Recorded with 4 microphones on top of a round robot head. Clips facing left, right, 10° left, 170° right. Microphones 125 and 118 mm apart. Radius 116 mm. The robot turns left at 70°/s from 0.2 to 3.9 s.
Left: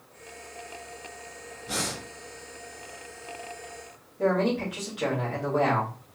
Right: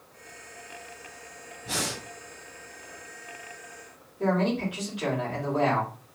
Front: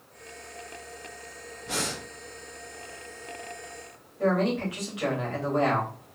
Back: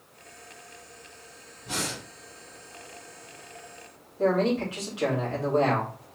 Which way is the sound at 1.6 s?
85° right.